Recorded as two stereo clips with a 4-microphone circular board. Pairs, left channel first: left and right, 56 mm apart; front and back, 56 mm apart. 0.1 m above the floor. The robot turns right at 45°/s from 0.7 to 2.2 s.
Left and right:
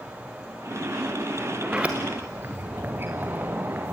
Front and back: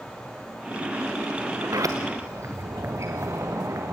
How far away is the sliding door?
About 2.5 m.